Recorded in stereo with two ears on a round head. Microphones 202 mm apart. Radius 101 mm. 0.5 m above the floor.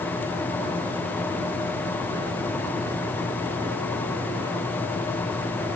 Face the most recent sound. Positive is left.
No sound to turn to.